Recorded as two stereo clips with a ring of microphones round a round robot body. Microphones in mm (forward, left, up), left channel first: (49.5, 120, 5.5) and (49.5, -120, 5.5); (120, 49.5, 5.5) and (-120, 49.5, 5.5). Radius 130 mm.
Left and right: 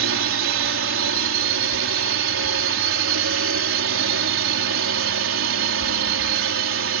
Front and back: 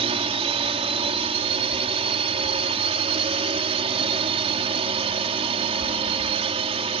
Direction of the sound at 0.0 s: 115° right.